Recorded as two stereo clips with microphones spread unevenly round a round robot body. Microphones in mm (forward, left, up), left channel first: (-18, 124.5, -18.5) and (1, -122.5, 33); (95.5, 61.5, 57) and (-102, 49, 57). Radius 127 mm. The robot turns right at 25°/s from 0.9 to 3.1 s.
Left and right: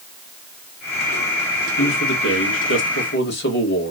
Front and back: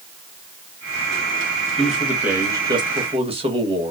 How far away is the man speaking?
About 1.6 m.